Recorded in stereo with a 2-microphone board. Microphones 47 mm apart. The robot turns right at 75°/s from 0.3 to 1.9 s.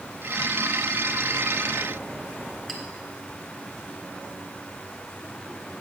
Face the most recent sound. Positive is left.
turn(degrees=10)  # may be behind; listen again after turning